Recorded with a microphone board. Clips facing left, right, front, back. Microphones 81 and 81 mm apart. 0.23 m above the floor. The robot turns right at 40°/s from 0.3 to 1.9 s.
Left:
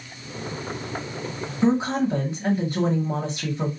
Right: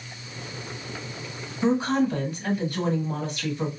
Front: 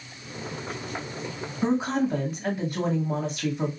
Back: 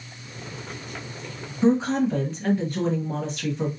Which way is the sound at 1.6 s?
60° left.